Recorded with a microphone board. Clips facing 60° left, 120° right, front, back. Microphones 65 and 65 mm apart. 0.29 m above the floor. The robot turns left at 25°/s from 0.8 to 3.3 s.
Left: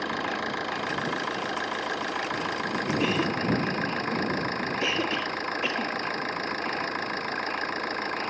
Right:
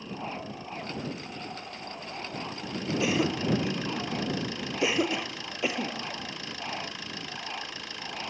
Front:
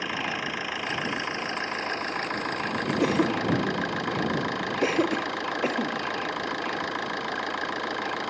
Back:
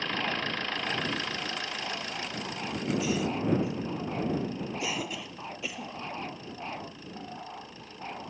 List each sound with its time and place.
0.0 s an engine running: 80° left; by 8.3 s 15° left
3.0 s a cough: 35° right; by 6.1 s 45° right